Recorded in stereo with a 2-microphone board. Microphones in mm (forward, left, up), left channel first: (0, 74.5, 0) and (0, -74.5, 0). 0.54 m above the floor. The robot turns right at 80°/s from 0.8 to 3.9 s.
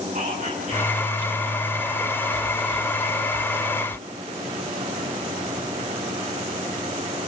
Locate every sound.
0.1 s whispering: 65° right, 6.5 m; by 1.6 s 5° right, 6.5 m